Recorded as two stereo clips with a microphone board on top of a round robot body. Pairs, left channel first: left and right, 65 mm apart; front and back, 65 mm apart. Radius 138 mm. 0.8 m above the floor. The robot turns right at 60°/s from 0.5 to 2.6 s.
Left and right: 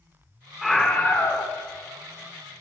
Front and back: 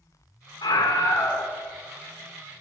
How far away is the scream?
About 2.5 m.